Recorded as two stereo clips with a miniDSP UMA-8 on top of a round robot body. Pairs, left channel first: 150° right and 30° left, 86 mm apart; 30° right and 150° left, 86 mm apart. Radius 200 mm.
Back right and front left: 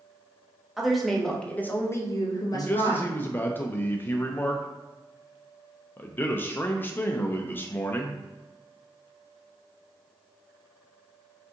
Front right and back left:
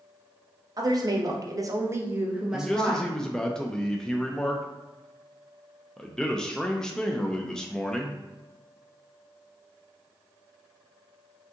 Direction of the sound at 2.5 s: 105° right.